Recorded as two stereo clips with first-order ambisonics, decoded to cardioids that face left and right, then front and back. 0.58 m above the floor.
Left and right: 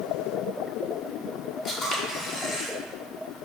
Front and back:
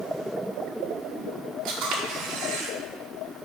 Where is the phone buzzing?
I don't hear a phone buzzing.